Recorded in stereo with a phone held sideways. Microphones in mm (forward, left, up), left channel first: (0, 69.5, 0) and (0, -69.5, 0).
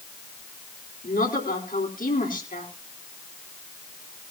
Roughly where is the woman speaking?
Left.